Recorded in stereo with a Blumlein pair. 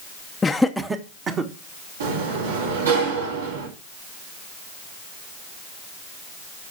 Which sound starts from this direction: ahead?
Laughter, at 0.4 s.